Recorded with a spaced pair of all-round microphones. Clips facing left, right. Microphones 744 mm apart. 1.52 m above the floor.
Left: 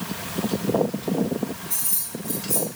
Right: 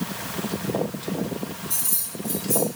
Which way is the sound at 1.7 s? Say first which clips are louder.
Left 1 dB; 45° right (ahead or behind).